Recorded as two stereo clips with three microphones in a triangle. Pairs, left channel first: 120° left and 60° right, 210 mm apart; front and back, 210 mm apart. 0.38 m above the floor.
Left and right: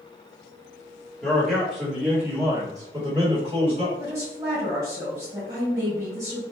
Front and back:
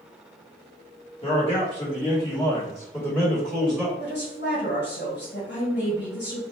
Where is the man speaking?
35° left, 1.7 m; by 3.9 s 90° right, 1.6 m.